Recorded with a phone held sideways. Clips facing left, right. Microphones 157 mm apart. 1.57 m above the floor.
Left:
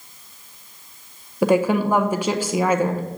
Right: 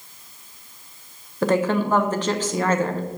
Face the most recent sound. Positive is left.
turn(degrees=10)  # may be behind; listen again after turning